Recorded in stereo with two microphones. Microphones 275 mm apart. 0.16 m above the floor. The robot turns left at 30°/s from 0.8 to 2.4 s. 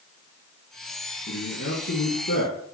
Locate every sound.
1.3 s a man speaking: 110° left, 2.5 m; by 2.6 s 75° left, 2.5 m